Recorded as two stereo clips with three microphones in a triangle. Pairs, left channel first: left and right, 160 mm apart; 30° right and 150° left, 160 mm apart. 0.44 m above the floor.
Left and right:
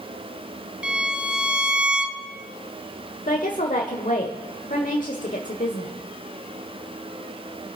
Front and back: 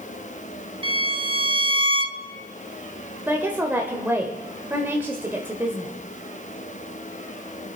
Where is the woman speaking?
75° left, 1.2 m.